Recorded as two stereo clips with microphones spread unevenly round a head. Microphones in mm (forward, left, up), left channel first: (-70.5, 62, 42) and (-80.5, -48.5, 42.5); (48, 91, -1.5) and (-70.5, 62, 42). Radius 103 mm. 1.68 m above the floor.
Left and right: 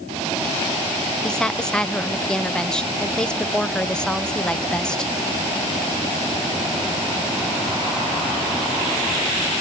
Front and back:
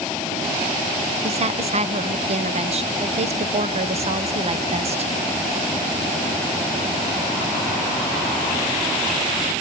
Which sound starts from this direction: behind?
A woman speaking, at 1.2 s.